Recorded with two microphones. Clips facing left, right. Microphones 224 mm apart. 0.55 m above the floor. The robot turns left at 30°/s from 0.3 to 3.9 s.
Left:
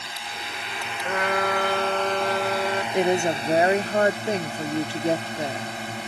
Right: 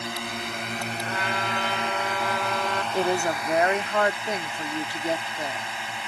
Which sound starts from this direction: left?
A trumpet, at 1.0 s.